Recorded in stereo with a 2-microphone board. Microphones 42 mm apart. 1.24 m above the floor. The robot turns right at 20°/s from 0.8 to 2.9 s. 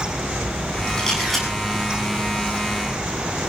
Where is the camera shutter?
15° left (ahead or behind), 7.5 m; by 1.5 s 5° left (ahead or behind), 7.5 m.